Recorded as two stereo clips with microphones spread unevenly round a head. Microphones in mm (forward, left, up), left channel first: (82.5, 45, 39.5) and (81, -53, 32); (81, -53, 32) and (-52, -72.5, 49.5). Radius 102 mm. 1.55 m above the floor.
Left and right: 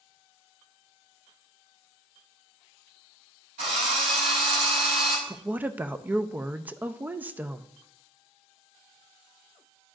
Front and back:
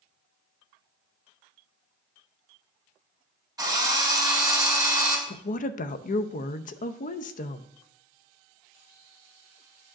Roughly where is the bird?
I don't hear a bird.